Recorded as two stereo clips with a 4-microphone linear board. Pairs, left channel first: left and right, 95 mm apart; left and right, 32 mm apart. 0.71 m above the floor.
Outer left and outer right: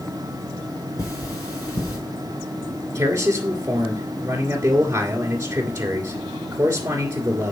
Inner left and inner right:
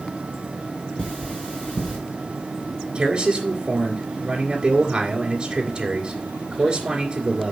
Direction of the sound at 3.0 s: 25° right (ahead or behind).